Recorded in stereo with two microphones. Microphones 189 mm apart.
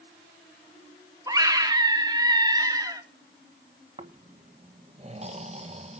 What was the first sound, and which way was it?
A scream, 20° right (ahead or behind).